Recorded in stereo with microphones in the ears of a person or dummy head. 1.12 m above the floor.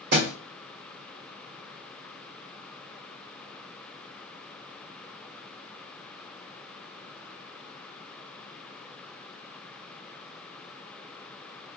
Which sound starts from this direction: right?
A thud, at 0.1 s.